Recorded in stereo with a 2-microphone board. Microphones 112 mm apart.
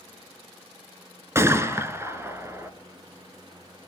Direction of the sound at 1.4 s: 25° right (ahead or behind).